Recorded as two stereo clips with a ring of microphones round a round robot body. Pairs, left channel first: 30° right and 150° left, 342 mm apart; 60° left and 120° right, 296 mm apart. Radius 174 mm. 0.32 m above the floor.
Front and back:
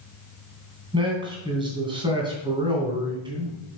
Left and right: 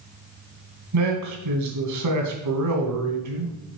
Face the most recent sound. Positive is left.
turn(degrees=-135)